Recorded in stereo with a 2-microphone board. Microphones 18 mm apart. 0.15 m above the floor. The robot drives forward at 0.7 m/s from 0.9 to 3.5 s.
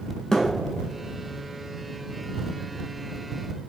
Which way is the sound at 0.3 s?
30° left (ahead or behind).